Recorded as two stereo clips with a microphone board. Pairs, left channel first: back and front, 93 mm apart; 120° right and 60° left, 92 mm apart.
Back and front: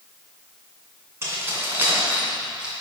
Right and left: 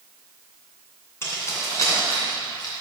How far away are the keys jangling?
About 2.5 m.